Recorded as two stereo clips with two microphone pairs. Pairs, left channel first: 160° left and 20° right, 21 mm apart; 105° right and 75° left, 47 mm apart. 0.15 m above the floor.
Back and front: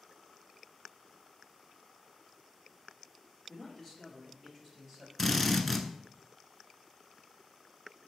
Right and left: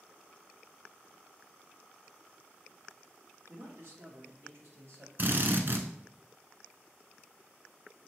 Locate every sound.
3.5 s a man speaking: 85° left, 1.9 m; by 5.1 s 60° left, 3 m
5.2 s a drill: 80° left, 0.7 m